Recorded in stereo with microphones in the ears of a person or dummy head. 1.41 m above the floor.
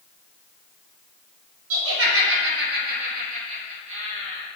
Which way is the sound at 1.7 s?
75° right (ahead or behind).